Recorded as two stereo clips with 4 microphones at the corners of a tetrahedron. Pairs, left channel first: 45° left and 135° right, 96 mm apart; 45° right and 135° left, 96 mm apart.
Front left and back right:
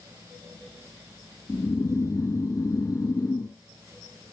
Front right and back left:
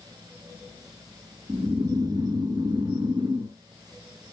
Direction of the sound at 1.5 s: 100° left.